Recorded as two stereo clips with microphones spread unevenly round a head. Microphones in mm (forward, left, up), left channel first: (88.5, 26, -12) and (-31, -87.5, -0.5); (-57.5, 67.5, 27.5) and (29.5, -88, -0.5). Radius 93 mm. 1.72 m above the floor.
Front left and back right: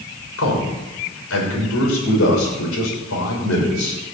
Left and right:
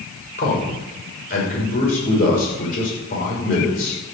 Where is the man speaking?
70° left, 6.5 m.